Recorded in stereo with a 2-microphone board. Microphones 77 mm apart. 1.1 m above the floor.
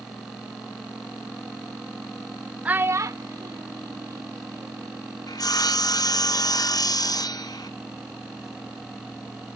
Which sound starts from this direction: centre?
A child speaking, at 2.6 s.